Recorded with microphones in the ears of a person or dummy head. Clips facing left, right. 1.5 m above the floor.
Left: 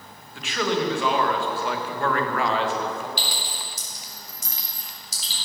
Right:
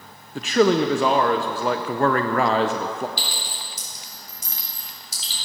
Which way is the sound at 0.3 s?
40° right (ahead or behind).